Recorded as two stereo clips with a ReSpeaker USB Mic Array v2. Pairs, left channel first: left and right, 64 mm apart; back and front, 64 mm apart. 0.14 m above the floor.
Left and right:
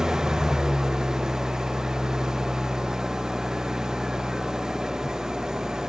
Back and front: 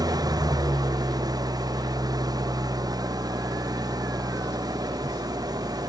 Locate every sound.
0.0 s an engine running: 10° right